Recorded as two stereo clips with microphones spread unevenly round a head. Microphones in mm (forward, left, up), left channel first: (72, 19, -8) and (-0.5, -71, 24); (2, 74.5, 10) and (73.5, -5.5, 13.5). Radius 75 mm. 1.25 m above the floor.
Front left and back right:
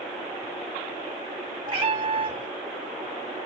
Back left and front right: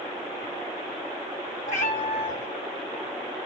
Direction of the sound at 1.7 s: Straight behind.